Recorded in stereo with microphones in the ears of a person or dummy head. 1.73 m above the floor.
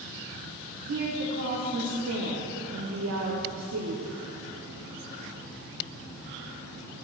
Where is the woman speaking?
70° right (ahead or behind), 0.8 m.